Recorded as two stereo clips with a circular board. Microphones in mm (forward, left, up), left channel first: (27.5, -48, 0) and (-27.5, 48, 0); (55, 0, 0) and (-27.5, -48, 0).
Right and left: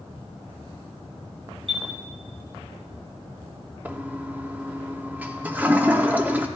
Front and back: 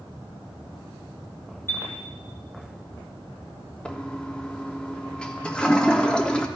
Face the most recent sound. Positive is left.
turn(degrees=90)